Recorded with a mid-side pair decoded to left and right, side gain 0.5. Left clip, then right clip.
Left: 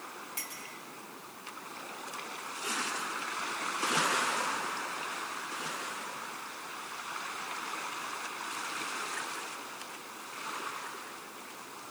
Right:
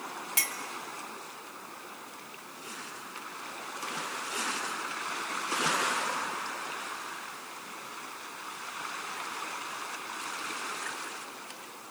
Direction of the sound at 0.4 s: 60° right.